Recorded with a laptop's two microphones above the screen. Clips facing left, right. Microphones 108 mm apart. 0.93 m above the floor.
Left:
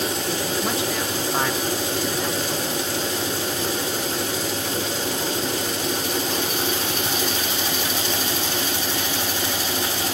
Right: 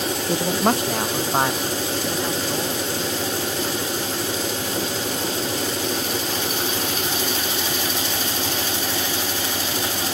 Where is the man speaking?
65° right (ahead or behind), 0.7 m; by 6.7 s 10° left (ahead or behind), 3.5 m.